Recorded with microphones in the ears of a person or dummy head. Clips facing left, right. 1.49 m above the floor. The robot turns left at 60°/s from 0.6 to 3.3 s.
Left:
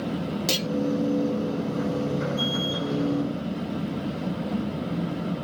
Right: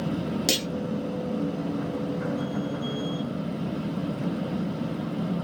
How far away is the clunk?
About 0.8 m.